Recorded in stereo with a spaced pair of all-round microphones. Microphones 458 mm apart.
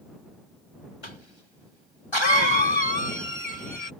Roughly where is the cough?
Left.